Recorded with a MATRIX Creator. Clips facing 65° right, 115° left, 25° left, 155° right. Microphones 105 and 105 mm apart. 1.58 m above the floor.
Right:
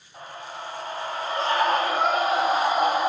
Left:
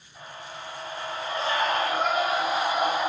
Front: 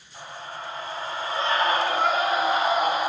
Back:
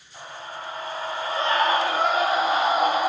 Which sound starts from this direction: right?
A scream, at 0.1 s.